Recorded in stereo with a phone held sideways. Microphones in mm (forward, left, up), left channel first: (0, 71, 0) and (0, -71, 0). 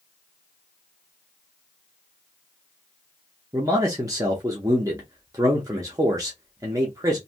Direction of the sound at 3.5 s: 25° right (ahead or behind).